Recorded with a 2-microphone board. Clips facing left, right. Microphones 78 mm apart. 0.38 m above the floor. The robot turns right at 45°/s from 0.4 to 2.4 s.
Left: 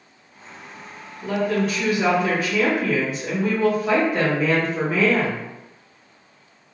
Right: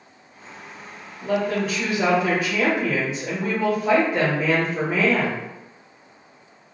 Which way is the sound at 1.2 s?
15° right (ahead or behind).